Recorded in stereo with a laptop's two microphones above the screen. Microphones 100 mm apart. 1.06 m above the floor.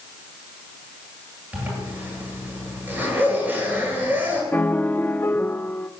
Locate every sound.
1.5 s a zipper: 15° right (ahead or behind), 8.5 m
4.5 s a piano: 15° left (ahead or behind), 0.5 m